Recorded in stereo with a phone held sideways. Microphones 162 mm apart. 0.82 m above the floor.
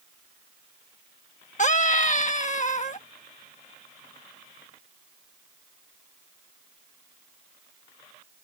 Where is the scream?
50° left (ahead or behind).